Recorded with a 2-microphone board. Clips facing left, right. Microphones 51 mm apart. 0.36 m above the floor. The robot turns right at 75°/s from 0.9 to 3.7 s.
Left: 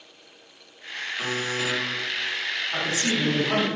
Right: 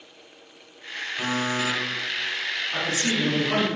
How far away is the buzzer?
About 1.4 m.